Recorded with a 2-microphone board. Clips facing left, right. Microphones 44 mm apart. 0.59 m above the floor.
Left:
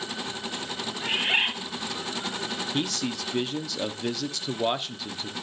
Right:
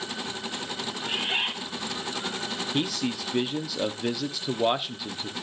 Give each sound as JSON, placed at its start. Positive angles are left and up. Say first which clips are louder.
{"t": 1.0, "sound": "a bird", "louder": "left 4 dB", "side_deg": 55, "distance_m": 2.5}
{"t": 2.7, "sound": "a man speaking", "louder": "right 2 dB", "side_deg": -10, "distance_m": 0.7}